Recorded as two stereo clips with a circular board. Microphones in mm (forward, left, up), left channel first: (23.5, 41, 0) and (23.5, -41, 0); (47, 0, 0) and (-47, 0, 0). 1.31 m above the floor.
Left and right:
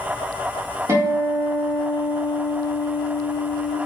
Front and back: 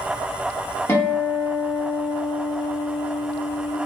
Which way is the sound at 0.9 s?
60° right.